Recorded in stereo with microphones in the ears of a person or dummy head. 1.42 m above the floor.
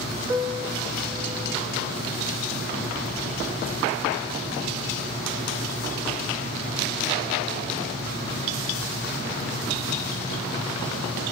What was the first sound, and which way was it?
A piano, 15° right (ahead or behind).